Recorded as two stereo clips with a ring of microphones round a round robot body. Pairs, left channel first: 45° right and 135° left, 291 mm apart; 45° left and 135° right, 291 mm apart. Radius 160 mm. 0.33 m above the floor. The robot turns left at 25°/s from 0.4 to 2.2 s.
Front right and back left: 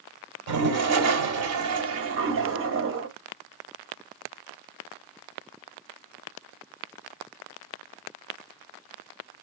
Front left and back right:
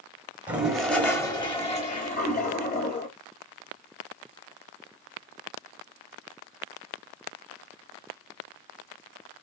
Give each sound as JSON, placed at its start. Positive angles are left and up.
{"t": 0.5, "sound": "a toilet flushing", "azimuth_deg": 145, "distance_m": 1.2}